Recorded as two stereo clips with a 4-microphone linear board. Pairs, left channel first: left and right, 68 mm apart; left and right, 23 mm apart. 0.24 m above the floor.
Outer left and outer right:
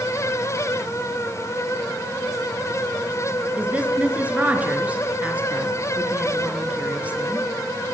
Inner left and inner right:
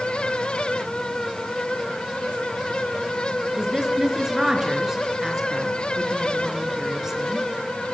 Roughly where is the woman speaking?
Centre.